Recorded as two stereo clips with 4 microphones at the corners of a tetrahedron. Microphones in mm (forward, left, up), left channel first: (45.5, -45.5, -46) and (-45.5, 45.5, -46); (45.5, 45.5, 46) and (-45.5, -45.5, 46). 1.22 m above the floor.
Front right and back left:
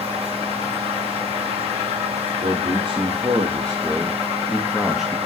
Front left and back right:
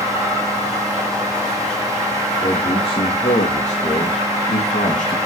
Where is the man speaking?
90° left, 2.5 m; by 5.2 s 45° left, 2.5 m.